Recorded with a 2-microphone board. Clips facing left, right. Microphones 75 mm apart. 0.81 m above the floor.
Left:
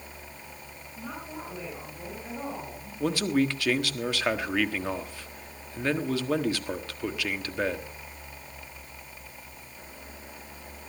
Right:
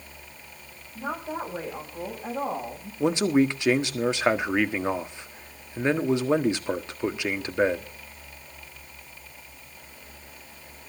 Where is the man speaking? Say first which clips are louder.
Right 4 dB; 20° right (ahead or behind), 1.4 m.